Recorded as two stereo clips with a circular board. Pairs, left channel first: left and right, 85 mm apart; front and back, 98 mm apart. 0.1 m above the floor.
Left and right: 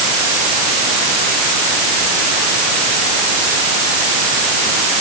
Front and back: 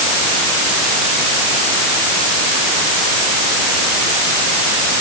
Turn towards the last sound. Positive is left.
No sound to turn to.